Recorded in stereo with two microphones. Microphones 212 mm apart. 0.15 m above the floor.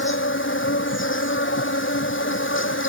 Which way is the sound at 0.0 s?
70° left (ahead or behind).